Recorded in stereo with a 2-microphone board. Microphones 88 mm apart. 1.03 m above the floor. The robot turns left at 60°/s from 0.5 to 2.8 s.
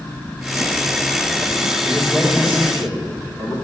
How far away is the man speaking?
About 2.5 m.